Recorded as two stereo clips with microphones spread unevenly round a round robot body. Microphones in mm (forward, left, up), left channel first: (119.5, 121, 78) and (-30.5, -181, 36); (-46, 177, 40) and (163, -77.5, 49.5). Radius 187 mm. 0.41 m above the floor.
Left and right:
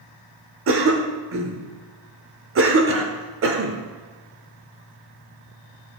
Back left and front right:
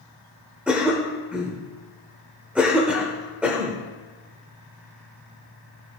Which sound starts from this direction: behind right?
A cough, at 0.7 s.